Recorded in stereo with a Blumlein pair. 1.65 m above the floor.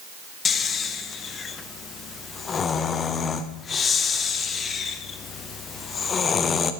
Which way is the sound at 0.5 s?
20° left.